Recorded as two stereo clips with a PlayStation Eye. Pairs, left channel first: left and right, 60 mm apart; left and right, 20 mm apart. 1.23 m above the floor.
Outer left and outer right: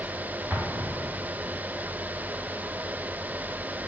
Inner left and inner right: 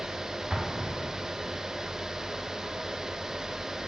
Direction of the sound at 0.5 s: 20° right (ahead or behind).